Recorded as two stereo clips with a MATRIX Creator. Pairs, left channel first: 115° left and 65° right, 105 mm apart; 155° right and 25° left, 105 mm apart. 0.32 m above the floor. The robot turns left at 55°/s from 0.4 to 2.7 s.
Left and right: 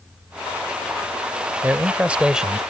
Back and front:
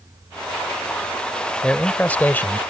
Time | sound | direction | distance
1.6 | a man speaking | 95° right | ?